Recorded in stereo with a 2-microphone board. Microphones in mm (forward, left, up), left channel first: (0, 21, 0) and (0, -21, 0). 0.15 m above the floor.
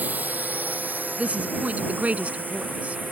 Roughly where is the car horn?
No car horn in this recording.